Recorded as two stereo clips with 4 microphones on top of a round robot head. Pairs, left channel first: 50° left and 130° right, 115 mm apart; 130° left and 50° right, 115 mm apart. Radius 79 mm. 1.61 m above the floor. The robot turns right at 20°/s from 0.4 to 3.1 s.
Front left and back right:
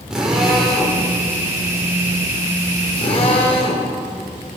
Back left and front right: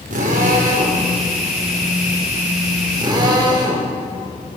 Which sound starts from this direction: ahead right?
A drill, at 0.1 s.